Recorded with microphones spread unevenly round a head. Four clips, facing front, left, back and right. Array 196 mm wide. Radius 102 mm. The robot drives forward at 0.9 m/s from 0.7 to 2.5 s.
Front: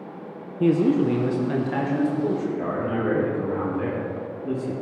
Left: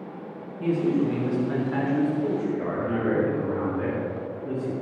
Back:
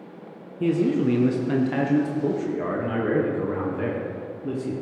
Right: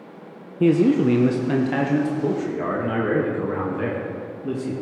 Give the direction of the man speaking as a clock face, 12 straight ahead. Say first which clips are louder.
Right 7 dB, front 2 dB; 3 o'clock.